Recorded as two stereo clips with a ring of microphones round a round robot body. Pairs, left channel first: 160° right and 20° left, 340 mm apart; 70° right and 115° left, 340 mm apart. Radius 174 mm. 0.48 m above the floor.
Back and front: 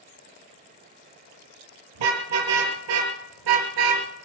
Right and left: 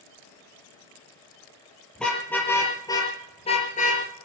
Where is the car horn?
20° left, 5 m; by 4.0 s straight ahead, 3.5 m.